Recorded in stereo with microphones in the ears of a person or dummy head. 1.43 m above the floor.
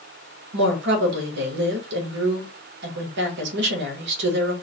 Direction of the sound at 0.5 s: 65° right (ahead or behind).